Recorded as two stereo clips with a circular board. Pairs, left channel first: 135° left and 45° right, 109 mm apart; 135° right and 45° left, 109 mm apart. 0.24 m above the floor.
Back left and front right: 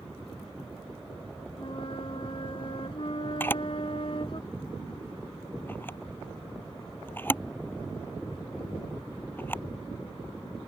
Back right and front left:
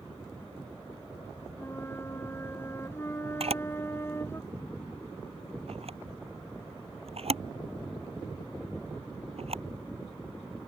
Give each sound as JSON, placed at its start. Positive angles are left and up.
{"t": 1.6, "sound": "a flute", "azimuth_deg": 160}
{"t": 3.4, "sound": "a camera shutter", "azimuth_deg": 65}